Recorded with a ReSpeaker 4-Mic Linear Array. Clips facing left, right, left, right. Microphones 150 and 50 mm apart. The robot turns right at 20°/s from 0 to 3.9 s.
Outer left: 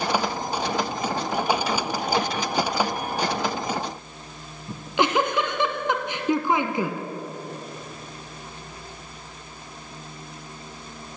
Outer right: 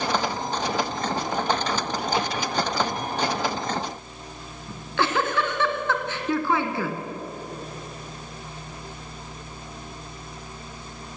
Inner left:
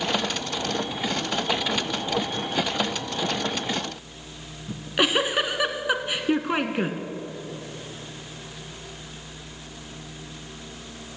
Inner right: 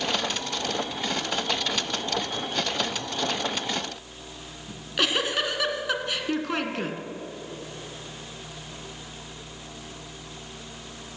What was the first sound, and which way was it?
A giggle, 20° left (ahead or behind).